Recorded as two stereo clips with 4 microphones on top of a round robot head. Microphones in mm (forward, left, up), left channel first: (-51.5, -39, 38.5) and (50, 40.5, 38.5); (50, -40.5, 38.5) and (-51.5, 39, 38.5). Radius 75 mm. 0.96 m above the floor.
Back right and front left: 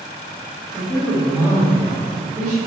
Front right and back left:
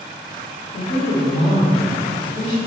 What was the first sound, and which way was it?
A woman speaking, 75° right.